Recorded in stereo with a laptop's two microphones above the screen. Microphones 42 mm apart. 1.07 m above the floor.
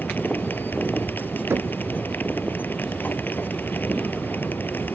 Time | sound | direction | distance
0.0 | a machine running | 50° left (ahead or behind) | ?
1.5 | knocking | 65° right (ahead or behind) | ?